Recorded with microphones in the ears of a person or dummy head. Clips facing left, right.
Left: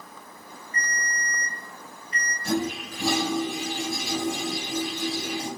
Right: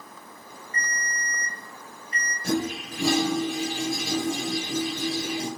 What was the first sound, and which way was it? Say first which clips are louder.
A ringtone: left 1 dB; 45° right (ahead or behind).